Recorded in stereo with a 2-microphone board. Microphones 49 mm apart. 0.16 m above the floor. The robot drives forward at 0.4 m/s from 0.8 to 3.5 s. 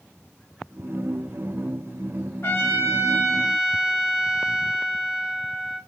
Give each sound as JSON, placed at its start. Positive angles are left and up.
{"t": 2.4, "sound": "a trumpet", "side_deg": 55, "distance_m": 0.7}